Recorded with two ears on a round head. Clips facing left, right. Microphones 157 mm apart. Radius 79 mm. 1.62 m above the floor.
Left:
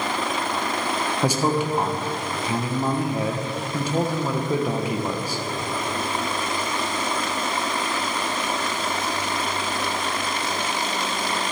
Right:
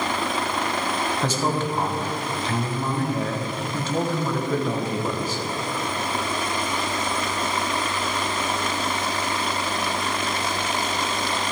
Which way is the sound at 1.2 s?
10° left (ahead or behind).